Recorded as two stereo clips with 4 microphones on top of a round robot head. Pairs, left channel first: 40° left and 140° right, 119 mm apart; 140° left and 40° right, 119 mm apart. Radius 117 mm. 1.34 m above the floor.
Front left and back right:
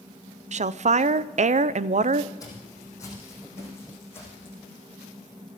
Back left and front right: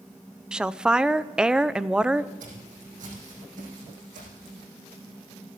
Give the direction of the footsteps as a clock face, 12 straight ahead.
1 o'clock.